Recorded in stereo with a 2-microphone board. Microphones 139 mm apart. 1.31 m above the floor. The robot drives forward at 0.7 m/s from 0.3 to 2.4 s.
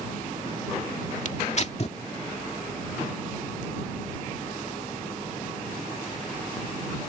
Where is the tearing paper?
55° left (ahead or behind); by 2.0 s 45° left (ahead or behind).